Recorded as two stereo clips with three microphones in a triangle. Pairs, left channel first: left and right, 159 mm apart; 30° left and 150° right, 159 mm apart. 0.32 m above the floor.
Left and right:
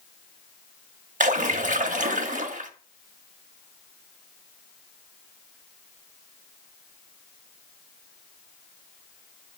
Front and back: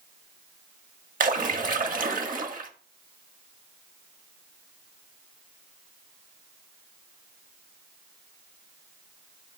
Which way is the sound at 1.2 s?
125° right.